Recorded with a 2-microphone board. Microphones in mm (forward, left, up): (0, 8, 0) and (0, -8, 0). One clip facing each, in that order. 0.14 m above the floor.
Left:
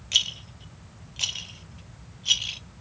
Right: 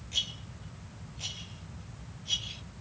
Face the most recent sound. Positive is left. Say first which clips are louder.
# left 9 dB
turn(degrees=75)  # may be behind; listen again after turning